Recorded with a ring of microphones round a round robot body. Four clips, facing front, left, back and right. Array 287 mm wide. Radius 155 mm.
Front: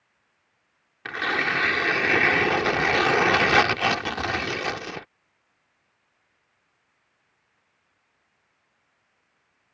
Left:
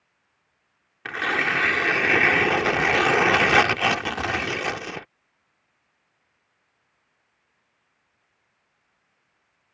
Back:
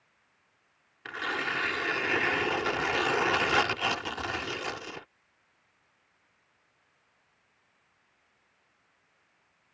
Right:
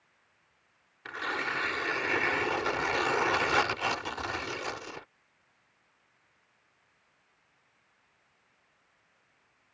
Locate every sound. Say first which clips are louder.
1.1 s tearing paper: left 9 dB, front 7 dB; 55° left